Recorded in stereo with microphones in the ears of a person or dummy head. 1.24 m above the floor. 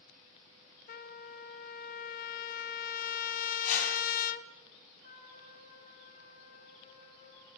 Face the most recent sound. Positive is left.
turn(degrees=45)  # may be behind; listen again after turning